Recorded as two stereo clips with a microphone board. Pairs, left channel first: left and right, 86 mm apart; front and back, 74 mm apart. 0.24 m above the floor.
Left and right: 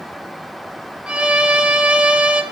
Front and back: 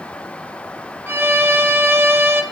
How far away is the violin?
About 0.6 m.